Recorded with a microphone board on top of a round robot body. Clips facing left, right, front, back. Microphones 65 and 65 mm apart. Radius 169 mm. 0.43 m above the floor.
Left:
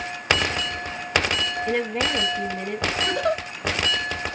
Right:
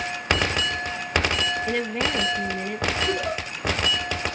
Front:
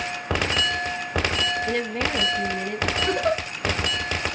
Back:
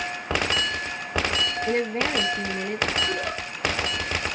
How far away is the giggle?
About 0.8 m.